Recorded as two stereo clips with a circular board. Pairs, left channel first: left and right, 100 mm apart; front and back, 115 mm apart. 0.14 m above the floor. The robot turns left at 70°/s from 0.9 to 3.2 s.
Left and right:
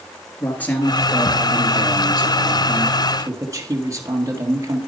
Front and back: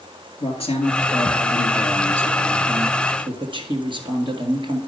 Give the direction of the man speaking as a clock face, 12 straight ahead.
11 o'clock.